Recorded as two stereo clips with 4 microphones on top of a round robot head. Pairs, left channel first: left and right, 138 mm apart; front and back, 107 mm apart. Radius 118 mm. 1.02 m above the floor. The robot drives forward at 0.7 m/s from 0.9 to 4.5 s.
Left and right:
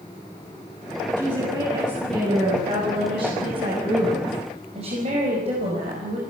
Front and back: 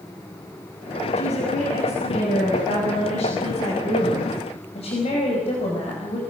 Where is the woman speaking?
25° right, 7.5 m; by 6.2 s 40° right, 5.5 m.